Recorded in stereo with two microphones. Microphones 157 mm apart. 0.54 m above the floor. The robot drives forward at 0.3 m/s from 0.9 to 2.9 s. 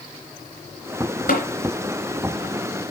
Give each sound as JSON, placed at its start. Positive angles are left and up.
{"t": 1.3, "sound": "tapping", "side_deg": 60, "distance_m": 3.0}